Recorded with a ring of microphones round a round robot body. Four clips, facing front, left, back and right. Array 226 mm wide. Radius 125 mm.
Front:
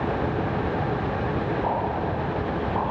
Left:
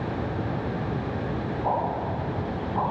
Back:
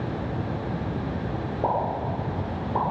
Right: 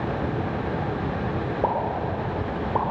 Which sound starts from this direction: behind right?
A pop, at 1.6 s.